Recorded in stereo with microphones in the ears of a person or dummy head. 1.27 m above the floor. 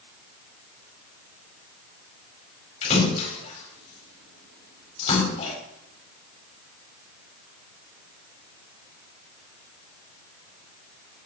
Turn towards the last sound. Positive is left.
turn(degrees=45)  # may be behind; listen again after turning